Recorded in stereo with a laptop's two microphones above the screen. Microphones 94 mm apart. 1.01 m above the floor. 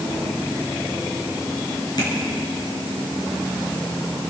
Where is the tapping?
45° left (ahead or behind), 4.5 m.